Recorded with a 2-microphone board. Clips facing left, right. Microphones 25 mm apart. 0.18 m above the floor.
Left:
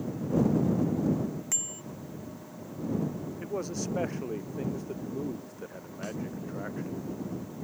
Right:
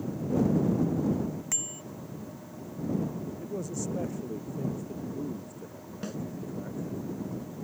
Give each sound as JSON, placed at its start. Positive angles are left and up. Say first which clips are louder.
{"t": 1.5, "sound": "a bicycle bell", "louder": "even", "side_deg": -5}
{"t": 3.4, "sound": "a man speaking", "louder": "left 3 dB", "side_deg": 55}
{"t": 6.0, "sound": "a snare drum", "louder": "even", "side_deg": -10}